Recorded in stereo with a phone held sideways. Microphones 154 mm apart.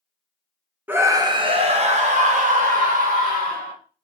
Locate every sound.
0.9 s a scream: 10° right (ahead or behind), 0.7 m; by 3.7 s 70° right (ahead or behind), 1.9 m